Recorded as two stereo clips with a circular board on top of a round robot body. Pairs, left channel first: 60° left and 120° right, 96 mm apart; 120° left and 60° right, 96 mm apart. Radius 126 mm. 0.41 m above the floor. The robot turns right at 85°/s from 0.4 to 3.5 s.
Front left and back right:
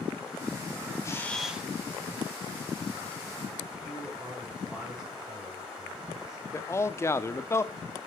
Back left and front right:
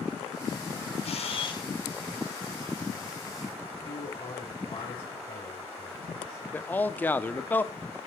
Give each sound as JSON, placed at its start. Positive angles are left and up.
{"t": 1.0, "sound": "a camera shutter", "azimuth_deg": 115, "distance_m": 3.0}
{"t": 3.8, "sound": "a man speaking", "azimuth_deg": 165, "distance_m": 6.0}
{"t": 6.5, "sound": "a man speaking", "azimuth_deg": 70, "distance_m": 1.4}